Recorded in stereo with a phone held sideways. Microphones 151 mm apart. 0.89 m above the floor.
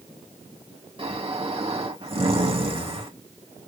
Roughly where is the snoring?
Right.